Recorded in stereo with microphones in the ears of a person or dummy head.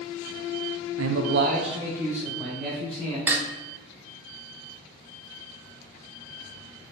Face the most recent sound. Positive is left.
turn(degrees=-15)  # may be behind; listen again after turning